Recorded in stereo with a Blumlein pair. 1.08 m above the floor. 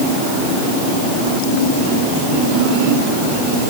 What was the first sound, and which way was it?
Only background noise.